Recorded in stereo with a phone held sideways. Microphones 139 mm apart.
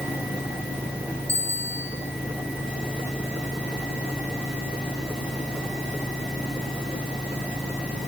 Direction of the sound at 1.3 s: 20° right (ahead or behind).